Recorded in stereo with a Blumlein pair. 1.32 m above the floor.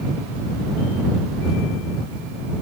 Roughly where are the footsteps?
No footsteps in this recording.